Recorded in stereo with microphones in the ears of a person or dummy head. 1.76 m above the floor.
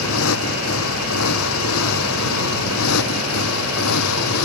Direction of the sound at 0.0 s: 80° left.